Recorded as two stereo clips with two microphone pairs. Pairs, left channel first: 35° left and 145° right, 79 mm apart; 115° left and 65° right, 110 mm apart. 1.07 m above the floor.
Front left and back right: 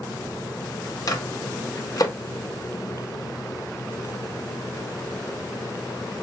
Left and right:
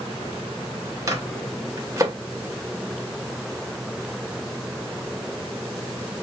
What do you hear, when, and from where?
1.1 s a microwave: 5° right, 0.9 m